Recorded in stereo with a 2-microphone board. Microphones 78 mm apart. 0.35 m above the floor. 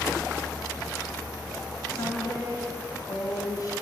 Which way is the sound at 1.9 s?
50° left (ahead or behind).